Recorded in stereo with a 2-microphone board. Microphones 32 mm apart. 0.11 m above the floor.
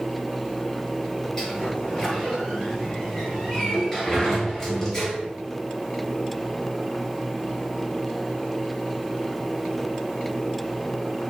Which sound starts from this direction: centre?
A sliding door, at 1.4 s.